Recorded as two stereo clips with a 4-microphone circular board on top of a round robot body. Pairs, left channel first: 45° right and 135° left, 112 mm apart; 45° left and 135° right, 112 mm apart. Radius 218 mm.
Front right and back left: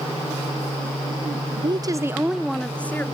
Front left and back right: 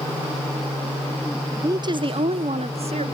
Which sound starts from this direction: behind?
A woman speaking, at 1.6 s.